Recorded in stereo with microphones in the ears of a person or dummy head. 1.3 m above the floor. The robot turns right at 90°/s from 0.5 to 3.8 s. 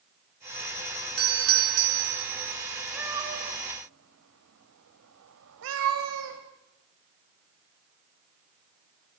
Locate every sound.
1.2 s a doorbell: 125° right, 2 m; by 2.2 s 30° right, 2 m
2.9 s a cat meowing: 5° right (ahead or behind), 3.5 m; by 6.4 s 80° right, 3.5 m